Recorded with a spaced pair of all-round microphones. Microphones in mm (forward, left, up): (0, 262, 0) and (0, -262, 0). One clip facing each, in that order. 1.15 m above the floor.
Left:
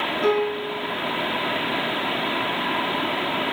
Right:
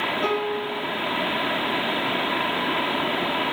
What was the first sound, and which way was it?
A piano, 50° left (ahead or behind).